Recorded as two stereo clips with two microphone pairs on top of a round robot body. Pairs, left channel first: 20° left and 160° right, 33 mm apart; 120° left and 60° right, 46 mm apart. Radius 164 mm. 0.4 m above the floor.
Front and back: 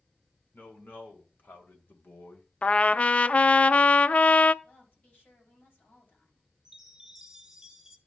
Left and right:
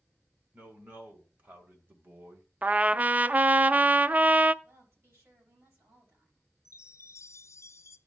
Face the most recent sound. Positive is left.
turn(degrees=125)